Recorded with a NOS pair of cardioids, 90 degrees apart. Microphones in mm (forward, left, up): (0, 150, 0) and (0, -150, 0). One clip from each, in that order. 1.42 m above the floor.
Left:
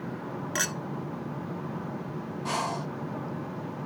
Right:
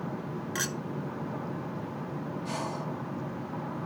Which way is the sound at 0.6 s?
25° left.